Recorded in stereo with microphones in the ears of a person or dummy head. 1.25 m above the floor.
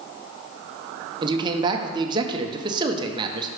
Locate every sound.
1.2 s a man speaking: 25° right (ahead or behind), 0.6 m